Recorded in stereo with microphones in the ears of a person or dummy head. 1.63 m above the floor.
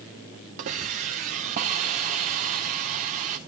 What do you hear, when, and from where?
0.6 s a hiss: 30° right (ahead or behind), 0.8 m